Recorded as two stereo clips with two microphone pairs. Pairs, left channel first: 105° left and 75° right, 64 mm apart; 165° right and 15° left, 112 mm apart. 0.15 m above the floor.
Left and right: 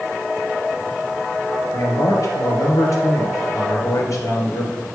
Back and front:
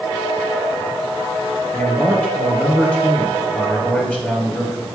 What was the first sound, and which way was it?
A man speaking, 120° left.